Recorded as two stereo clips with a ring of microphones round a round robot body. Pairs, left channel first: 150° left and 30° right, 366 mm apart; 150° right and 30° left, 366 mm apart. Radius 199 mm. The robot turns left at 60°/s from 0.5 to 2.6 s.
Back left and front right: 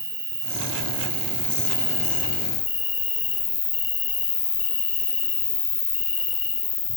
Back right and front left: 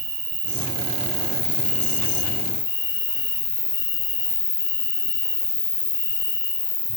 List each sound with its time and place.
0.0 s an insect: 25° right, 1.4 m; by 7.0 s 150° right, 1.4 m